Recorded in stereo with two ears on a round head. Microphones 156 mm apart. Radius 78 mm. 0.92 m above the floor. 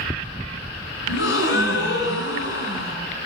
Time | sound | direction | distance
1.1 | a gasp | 80° left | 10 m